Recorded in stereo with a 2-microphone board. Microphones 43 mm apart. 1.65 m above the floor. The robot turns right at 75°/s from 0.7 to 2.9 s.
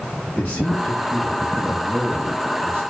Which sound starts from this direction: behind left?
A man speaking, at 0.4 s.